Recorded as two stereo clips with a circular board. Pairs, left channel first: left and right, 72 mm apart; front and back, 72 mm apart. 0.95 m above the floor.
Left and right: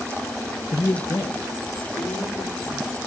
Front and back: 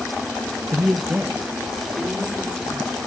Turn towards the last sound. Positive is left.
turn(degrees=105)